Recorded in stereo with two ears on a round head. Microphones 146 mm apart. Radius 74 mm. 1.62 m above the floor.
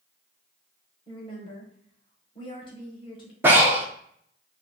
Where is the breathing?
15° right (ahead or behind), 0.6 m.